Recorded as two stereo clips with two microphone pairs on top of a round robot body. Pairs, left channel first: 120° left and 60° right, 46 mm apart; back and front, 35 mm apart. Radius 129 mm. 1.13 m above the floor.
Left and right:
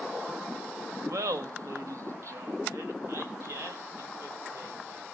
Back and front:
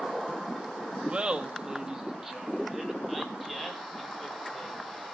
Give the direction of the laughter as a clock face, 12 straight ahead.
2 o'clock.